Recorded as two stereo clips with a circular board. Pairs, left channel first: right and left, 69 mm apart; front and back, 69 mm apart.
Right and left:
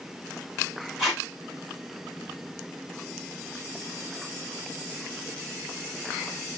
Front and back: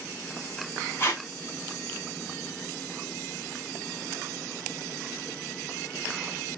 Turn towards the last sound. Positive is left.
turn(degrees=10)